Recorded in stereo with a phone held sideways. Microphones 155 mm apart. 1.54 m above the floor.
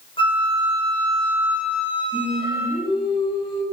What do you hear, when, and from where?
0.2 s a flute: 35° left (ahead or behind), 5.5 m
2.1 s singing: 35° left (ahead or behind), 7 m